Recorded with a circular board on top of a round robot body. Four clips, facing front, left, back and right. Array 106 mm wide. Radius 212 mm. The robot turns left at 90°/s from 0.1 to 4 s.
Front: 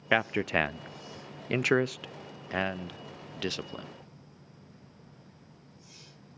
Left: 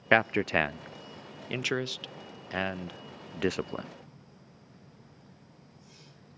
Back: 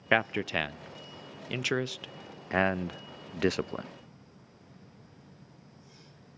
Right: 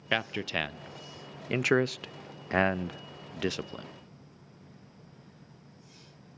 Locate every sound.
0.1 s a man speaking: 95° left, 0.7 m; by 3.9 s 115° left, 0.7 m